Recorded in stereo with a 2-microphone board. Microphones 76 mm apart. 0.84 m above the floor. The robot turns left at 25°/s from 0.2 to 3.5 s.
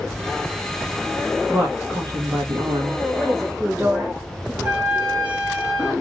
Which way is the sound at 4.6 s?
25° right (ahead or behind).